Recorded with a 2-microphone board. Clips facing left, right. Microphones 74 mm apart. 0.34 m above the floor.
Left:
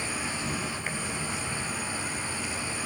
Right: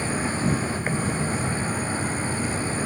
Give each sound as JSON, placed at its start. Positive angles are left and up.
{"t": 0.0, "sound": "an insect", "side_deg": -40, "distance_m": 1.0}